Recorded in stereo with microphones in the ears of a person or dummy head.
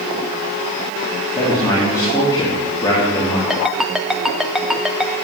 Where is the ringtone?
Centre (ahead or behind), 0.8 m.